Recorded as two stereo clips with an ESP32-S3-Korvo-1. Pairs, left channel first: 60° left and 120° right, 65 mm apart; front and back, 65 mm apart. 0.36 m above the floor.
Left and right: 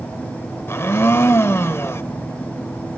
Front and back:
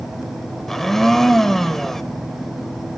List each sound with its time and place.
0.7 s a blender: 80° left, 0.9 m